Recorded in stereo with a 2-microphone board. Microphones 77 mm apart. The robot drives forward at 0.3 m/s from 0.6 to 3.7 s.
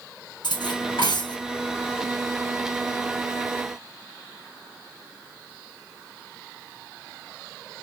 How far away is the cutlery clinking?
About 2 m.